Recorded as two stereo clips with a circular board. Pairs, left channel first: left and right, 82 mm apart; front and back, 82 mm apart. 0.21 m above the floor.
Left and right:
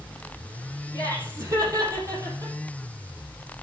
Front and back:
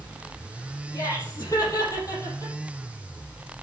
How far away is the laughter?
About 6 m.